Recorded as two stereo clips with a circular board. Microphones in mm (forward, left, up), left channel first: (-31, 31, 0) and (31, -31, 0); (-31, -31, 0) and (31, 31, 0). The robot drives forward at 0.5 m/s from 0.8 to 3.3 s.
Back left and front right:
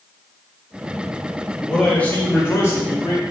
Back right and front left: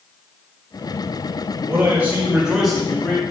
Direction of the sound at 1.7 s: 65° left.